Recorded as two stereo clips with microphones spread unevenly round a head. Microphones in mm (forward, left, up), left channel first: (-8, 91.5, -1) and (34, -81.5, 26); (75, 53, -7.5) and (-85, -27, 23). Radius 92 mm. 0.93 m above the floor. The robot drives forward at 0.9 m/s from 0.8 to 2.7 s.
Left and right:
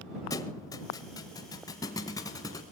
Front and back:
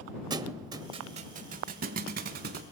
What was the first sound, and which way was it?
A thud, 175° left.